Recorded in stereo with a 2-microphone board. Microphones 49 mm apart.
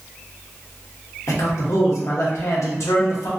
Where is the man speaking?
65° left (ahead or behind), 0.8 m.